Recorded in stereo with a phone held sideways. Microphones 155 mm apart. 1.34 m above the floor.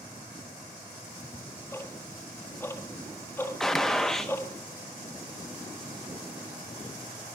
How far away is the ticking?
About 1.7 m.